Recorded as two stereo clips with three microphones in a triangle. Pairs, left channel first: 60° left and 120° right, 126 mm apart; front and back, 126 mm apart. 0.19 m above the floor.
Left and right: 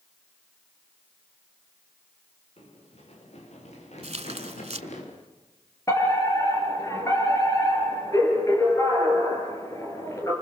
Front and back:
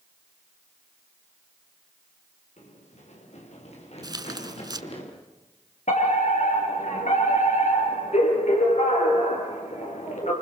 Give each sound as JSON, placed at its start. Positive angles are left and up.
{"t": 2.6, "sound": "running footsteps", "azimuth_deg": 25, "distance_m": 6.5}
{"t": 4.0, "sound": "tearing paper", "azimuth_deg": -130, "distance_m": 0.9}
{"t": 5.9, "sound": "a fire alarm", "azimuth_deg": 0, "distance_m": 5.5}